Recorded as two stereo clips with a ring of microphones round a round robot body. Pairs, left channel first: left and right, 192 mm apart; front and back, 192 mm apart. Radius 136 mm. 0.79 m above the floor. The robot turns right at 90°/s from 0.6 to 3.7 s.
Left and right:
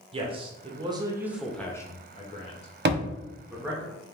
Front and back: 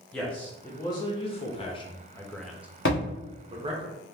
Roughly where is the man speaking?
Right.